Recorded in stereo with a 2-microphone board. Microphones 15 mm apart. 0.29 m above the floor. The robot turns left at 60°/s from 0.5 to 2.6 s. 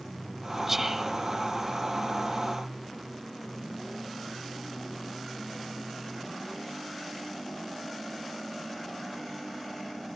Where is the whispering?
10° right (ahead or behind), 1.7 m; by 1.1 s 30° right (ahead or behind), 1.7 m.